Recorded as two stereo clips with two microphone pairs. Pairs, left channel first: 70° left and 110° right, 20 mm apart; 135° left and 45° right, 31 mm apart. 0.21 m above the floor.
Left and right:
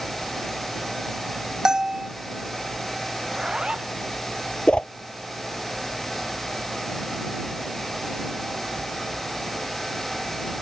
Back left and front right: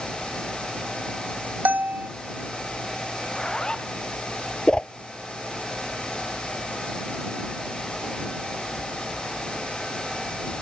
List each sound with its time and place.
1.6 s a bell: 60° right
3.2 s a zipper: 160° right
4.7 s a whoosh: 75° left